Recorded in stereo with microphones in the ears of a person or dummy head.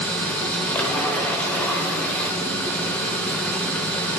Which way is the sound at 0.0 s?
5° left (ahead or behind).